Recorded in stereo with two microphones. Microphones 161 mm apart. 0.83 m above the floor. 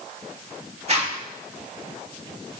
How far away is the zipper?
About 2 m.